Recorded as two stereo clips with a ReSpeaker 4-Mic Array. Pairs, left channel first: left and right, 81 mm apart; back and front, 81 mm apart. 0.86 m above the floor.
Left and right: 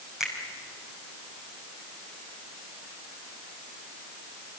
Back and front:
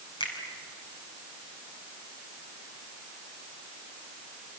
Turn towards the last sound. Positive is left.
turn(degrees=-175)